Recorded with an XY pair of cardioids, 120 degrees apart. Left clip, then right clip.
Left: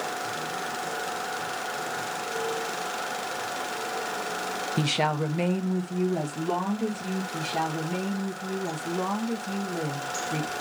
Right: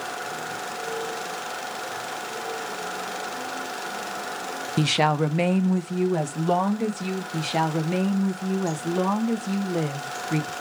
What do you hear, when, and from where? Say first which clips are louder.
4.8 s a woman speaking: right 5 dB; 20° right, 0.6 m; by 7.2 s 55° right, 1.7 m
7.3 s a woman speaking: right 4 dB; 55° right, 1.0 m